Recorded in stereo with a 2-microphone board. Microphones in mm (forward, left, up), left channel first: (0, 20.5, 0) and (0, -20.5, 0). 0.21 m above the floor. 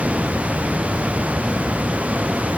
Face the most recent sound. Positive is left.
No sound to turn to.